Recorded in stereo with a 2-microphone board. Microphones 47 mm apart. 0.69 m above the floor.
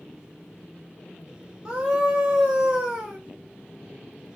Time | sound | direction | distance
1.6 | a scream | 20° right (ahead or behind) | 0.7 m